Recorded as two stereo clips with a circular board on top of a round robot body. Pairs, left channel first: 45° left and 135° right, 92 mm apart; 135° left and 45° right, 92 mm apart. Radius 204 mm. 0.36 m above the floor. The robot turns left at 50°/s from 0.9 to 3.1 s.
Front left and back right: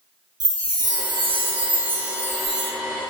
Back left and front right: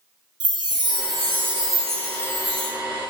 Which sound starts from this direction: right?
A chime, at 0.4 s.